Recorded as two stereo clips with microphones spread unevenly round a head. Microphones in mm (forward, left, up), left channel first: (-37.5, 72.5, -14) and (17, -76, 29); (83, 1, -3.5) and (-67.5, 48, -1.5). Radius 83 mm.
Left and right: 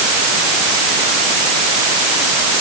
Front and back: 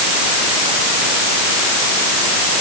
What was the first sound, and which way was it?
Only background noise.